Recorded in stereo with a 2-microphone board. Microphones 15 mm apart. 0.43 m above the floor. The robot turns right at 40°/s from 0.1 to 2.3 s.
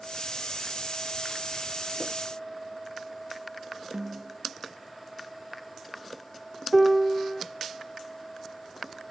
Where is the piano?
10° left (ahead or behind), 0.5 m.